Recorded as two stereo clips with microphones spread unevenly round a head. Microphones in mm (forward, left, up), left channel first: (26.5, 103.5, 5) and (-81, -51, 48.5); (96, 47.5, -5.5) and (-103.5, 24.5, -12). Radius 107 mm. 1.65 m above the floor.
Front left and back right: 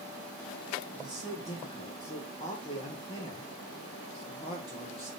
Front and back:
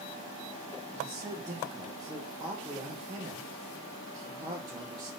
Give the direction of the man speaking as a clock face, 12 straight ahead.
8 o'clock.